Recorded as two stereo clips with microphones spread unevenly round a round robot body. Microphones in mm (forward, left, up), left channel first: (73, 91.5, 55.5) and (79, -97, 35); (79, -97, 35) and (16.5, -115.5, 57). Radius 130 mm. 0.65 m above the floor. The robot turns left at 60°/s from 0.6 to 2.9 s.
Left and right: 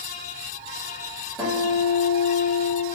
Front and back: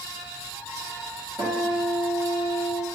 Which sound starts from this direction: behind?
A guitar, at 1.4 s.